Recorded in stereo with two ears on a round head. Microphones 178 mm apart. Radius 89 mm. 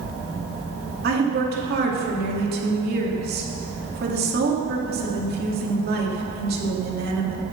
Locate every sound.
1.0 s a woman speaking: 50° right (ahead or behind), 3 m